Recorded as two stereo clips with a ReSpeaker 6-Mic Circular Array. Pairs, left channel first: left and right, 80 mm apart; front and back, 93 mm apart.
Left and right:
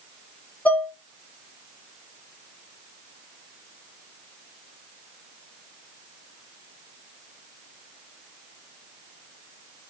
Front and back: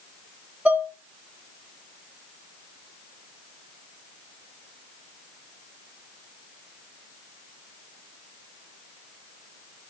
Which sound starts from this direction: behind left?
Dishes clattering, at 0.7 s.